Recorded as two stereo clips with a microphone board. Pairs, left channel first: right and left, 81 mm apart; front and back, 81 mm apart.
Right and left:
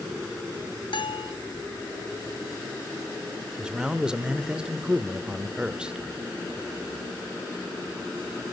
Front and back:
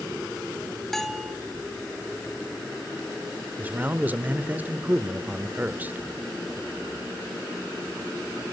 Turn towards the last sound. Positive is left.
turn(degrees=150)